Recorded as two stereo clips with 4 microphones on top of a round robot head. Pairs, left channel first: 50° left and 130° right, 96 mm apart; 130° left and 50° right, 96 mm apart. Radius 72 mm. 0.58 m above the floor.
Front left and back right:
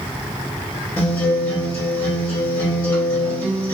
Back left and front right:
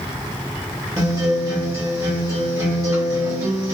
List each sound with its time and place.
1.0 s a guitar: 10° right, 1.4 m